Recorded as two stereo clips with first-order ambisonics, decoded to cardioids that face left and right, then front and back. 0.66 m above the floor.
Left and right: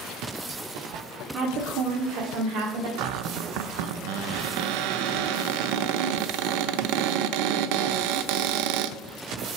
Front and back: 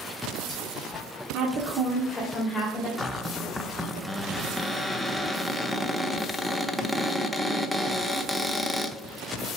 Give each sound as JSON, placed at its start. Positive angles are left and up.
{"t": 1.3, "sound": "a woman speaking", "azimuth_deg": -145, "distance_m": 1.2}
{"t": 3.0, "sound": "a cupboard door", "azimuth_deg": -90, "distance_m": 0.5}